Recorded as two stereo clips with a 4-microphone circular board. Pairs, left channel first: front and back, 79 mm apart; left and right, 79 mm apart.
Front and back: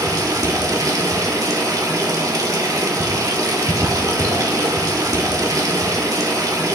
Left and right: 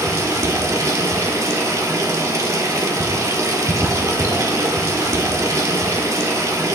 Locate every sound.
0.0 s running water: 135° right, 1.8 m